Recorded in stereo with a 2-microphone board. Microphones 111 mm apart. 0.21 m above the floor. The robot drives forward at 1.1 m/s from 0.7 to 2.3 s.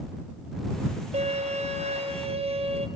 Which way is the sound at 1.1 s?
70° right (ahead or behind).